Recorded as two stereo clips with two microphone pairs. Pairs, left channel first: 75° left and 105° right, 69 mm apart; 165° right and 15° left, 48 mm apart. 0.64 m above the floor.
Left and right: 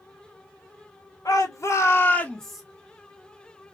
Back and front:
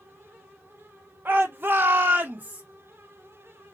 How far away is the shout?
About 1.9 m.